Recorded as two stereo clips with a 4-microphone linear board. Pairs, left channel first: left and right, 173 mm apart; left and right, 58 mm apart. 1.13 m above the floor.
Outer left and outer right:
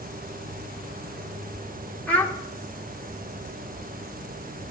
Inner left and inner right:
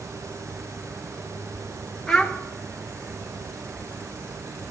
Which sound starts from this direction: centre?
A child speaking, at 2.1 s.